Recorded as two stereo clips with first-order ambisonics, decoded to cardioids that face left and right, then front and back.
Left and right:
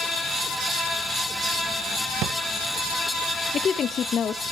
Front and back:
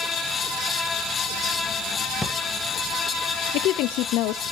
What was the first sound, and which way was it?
A drawer, 80° right.